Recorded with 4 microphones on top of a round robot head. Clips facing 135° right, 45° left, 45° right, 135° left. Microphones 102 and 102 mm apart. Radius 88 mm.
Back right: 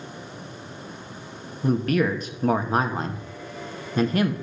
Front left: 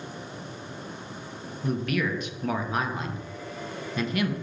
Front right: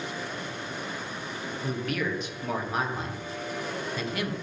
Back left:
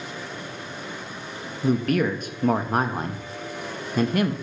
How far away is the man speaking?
About 1.7 m.